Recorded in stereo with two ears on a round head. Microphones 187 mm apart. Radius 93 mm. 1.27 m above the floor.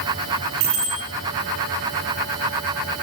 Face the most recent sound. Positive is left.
turn(degrees=-70)  # may be behind; listen again after turning